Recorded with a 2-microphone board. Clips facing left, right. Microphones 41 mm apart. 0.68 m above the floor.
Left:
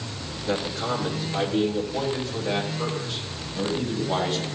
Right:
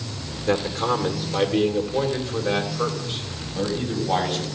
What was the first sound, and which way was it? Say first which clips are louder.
A man speaking: right 5 dB; 45° right (ahead or behind).